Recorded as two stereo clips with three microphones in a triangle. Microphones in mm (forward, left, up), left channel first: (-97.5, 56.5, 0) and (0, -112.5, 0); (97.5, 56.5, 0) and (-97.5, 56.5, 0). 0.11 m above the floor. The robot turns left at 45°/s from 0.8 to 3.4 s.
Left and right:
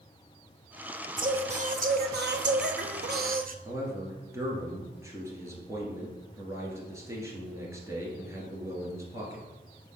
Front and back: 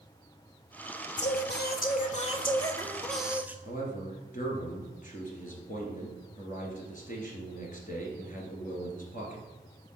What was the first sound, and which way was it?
Singing, straight ahead.